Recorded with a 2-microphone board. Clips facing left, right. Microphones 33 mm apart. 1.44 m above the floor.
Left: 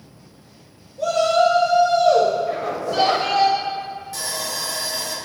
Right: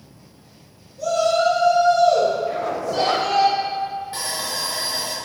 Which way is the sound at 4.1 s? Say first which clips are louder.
Right 1 dB; 35° right (ahead or behind).